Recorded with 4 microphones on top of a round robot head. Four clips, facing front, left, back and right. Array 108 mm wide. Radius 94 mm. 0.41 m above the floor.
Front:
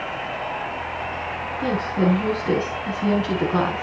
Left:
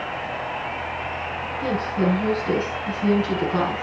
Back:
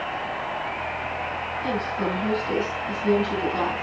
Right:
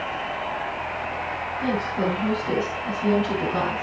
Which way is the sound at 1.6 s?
15° left.